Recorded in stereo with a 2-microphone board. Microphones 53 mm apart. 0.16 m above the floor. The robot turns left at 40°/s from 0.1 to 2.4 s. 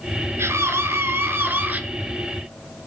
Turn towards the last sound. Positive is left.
turn(degrees=-165)